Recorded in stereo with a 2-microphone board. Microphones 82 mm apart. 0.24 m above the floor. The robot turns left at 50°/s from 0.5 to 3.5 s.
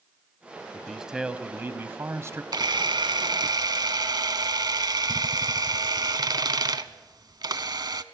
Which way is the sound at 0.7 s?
5° left.